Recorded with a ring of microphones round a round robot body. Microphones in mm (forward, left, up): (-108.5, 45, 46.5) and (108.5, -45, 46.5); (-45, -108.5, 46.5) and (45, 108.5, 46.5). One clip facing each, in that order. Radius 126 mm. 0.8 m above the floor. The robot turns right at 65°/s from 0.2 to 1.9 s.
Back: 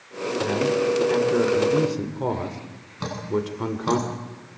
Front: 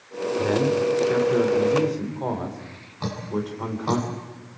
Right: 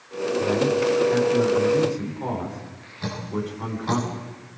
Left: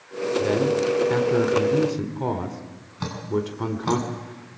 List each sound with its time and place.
0.4 s a man speaking: 5° left, 3.5 m; by 4.0 s 100° left, 3.5 m
3.0 s dripping: 85° left, 8 m